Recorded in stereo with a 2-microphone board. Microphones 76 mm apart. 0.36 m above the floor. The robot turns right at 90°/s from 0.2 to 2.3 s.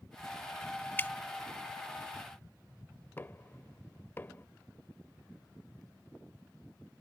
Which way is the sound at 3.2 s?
25° left (ahead or behind).